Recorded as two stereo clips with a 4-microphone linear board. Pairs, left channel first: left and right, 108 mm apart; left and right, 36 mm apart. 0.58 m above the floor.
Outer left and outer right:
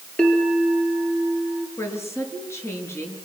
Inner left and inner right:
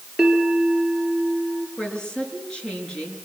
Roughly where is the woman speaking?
Left.